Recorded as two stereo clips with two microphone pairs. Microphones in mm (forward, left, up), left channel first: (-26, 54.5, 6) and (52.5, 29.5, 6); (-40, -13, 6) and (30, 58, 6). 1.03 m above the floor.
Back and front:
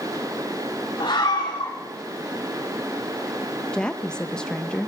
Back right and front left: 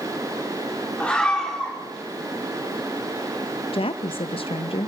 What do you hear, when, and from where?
1.0 s a scream: 150° left, 2.5 m
3.7 s a woman speaking: 120° right, 0.7 m